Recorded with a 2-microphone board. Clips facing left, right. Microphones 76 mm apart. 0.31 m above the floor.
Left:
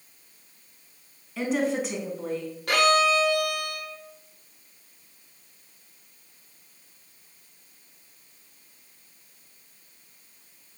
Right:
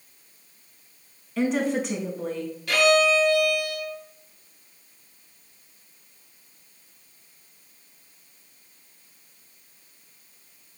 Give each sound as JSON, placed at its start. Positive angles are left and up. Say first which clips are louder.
{"t": 1.4, "sound": "a woman speaking", "louder": "right 2 dB", "side_deg": 0, "distance_m": 3.0}
{"t": 2.7, "sound": "a violin", "louder": "right 1 dB", "side_deg": 50, "distance_m": 2.0}